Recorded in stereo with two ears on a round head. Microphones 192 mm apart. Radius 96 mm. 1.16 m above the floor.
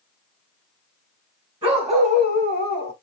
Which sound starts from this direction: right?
A dog barking, at 1.6 s.